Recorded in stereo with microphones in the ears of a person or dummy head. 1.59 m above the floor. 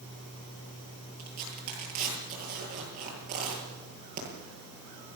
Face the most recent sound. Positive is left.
turn(degrees=-40)  # may be behind; listen again after turning